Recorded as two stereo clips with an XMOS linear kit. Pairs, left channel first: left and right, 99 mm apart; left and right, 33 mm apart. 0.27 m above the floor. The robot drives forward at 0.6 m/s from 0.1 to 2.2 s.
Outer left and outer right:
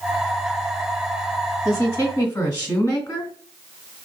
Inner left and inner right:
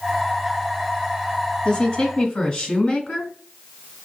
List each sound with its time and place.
1.6 s a woman speaking: 20° left (ahead or behind), 1.0 m